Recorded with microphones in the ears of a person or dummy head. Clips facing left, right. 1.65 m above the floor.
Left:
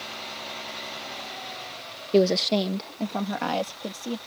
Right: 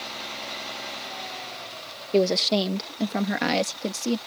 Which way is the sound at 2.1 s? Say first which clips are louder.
Left 1 dB; 10° left (ahead or behind).